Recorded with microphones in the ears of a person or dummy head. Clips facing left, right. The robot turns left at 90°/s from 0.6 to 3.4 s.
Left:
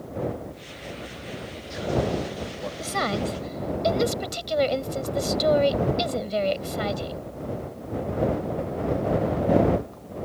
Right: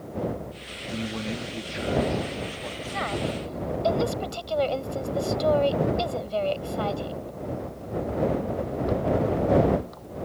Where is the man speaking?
70° right; by 2.7 s 130° left.